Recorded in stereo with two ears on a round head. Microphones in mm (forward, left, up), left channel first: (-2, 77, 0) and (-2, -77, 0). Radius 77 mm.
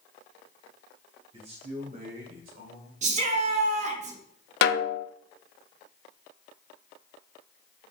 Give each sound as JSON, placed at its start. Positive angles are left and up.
{"t": 1.3, "sound": "a man speaking", "side_deg": -35, "distance_m": 1.6}
{"t": 3.0, "sound": "a shout", "side_deg": -40, "distance_m": 1.4}
{"t": 4.6, "sound": "a snare drum", "side_deg": 65, "distance_m": 0.5}